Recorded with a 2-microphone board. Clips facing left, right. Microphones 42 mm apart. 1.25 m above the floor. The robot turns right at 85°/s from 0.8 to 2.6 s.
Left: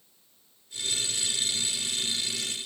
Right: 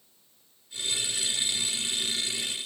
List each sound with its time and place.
Only background noise.